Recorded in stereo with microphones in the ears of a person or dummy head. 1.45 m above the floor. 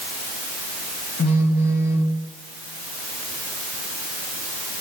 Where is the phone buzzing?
50° left (ahead or behind), 1.8 m.